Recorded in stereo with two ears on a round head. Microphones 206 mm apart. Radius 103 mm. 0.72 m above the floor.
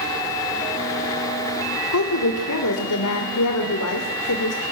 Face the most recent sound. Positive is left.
turn(degrees=75)  # may be behind; listen again after turning